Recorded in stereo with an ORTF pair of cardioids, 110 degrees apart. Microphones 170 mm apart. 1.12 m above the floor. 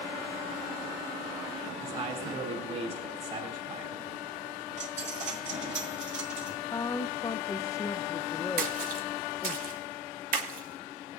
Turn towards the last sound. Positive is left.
turn(degrees=-60)